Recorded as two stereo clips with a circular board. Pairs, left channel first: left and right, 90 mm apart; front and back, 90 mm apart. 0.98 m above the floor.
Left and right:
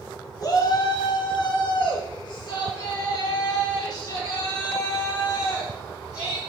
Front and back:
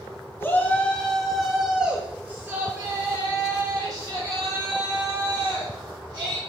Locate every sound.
0.4 s a shout: 55° left, 1.3 m; by 6.4 s 140° left, 3.5 m